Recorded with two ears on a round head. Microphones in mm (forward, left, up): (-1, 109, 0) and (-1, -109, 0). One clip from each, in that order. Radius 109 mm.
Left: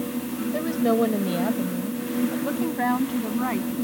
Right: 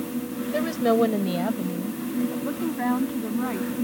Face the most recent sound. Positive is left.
turn(degrees=30)  # may be behind; listen again after turning